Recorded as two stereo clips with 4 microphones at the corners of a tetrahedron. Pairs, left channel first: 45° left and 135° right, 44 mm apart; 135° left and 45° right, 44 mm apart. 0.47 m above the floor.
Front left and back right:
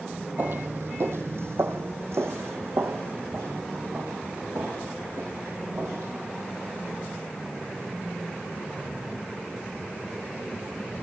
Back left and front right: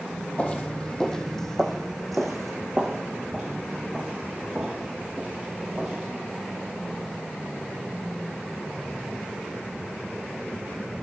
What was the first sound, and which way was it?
Footsteps, 165° right.